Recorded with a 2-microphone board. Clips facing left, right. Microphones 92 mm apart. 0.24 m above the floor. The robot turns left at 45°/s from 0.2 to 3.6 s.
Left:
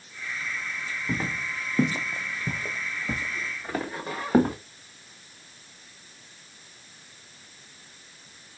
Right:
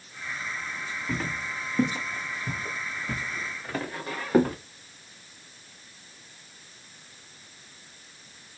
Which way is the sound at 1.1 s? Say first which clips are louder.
Left 1 dB; 20° left (ahead or behind).